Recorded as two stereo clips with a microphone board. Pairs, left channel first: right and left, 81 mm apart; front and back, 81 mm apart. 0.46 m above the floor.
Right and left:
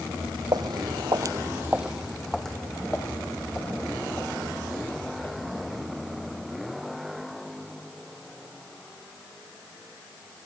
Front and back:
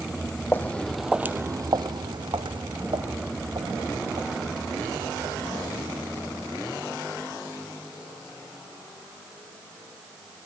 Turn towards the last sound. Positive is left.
turn(degrees=-160)